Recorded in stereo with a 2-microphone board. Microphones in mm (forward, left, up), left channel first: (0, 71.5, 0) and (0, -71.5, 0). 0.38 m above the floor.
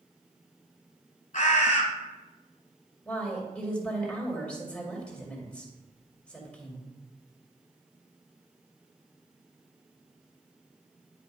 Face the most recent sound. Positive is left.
turn(degrees=10)  # may be behind; listen again after turning